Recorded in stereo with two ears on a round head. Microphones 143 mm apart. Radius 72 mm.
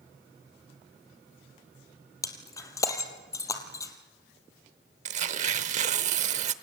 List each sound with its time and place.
2.2 s breaking glass: 20° left (ahead or behind), 3 m
5.0 s tearing paper: 45° right (ahead or behind), 1.0 m